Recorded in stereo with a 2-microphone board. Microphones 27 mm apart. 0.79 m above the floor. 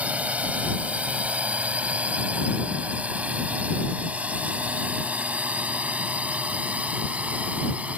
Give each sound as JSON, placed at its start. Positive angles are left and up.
{"t": 0.0, "sound": "a drone", "side_deg": -65}